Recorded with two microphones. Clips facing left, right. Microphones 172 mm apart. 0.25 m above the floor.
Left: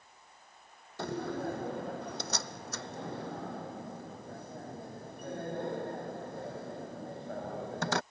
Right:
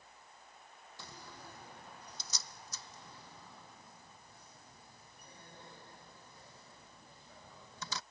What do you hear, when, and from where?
1.0 s a door slam: 65° left (ahead or behind)